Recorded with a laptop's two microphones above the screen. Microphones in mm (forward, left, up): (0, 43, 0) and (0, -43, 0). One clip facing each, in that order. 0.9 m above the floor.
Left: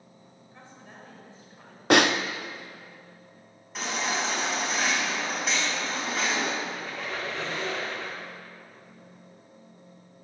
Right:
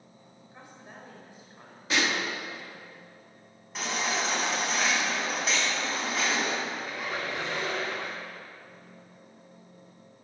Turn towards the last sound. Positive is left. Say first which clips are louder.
# even
turn(degrees=-15)  # may be behind; listen again after turning